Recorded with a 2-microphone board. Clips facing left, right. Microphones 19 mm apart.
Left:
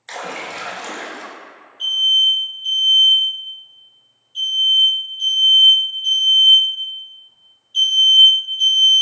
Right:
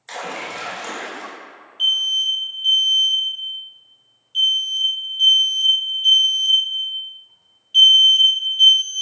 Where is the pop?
I don't hear a pop.